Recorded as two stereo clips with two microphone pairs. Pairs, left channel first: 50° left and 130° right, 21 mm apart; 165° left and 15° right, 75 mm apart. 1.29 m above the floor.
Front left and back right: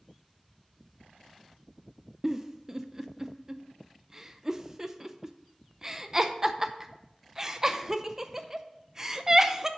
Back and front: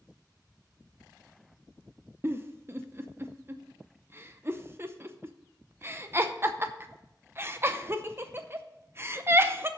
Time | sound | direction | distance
2.2 | a giggle | 70° right | 0.6 m